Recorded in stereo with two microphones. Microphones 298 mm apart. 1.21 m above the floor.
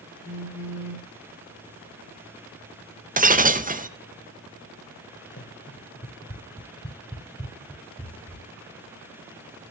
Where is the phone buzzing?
55° left (ahead or behind), 6 m.